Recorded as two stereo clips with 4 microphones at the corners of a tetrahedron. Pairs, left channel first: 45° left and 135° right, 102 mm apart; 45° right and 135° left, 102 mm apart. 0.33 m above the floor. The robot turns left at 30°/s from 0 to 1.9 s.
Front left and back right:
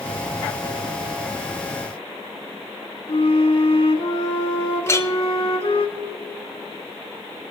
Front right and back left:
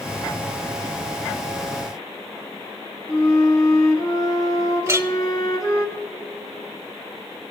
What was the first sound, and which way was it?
A flute, 10° left.